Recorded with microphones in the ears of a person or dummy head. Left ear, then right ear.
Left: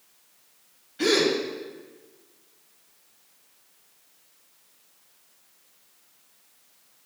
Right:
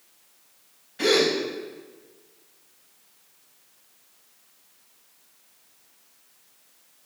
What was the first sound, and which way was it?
A gasp, 15° right (ahead or behind).